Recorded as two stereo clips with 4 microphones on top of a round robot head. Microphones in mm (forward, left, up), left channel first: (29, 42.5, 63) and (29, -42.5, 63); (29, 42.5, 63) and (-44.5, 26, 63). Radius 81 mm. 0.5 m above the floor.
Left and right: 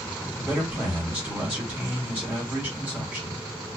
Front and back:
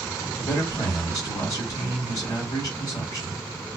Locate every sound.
0.4 s a man speaking: 15° right, 1.4 m